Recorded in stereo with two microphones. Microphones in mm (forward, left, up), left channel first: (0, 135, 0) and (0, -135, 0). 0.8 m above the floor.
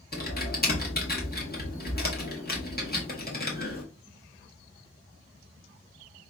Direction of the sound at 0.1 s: 35° left (ahead or behind).